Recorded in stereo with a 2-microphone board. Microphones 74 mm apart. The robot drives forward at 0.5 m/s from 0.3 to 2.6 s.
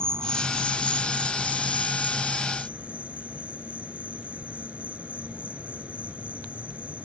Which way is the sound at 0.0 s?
30° right (ahead or behind).